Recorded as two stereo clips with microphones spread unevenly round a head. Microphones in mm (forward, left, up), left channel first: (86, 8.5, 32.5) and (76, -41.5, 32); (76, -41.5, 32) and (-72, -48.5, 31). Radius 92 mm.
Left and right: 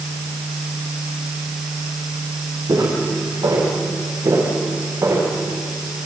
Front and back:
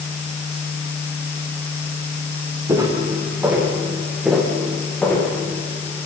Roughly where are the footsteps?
Right.